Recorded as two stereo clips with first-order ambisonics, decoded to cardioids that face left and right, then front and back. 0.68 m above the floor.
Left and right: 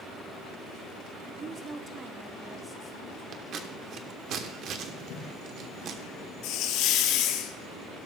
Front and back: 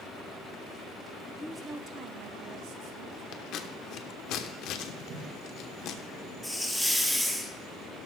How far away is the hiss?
About 1.0 m.